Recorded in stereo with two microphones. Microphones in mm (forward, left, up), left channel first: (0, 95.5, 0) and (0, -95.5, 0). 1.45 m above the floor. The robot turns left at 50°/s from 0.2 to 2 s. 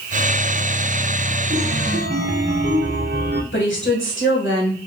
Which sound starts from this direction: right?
A chime, at 1.5 s.